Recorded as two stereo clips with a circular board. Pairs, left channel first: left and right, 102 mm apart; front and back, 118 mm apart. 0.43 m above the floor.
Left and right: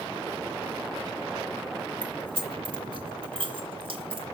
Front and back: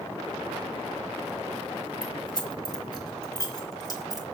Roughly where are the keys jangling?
Ahead right.